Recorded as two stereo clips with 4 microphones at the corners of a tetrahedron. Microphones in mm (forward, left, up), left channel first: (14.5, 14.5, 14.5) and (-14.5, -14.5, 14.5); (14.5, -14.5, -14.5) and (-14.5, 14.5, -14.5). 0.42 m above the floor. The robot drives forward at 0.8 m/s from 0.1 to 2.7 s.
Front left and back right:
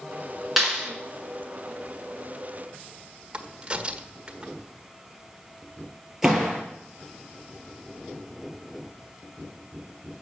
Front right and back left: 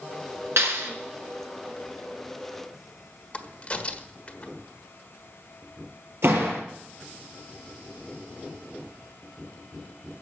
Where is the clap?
140° left, 4 m.